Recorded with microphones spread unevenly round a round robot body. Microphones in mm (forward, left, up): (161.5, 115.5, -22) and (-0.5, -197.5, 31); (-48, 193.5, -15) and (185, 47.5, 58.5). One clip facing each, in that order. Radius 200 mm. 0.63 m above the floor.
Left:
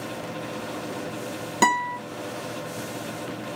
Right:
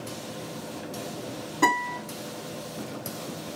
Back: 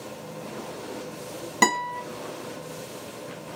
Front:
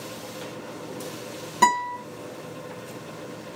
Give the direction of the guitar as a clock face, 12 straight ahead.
9 o'clock.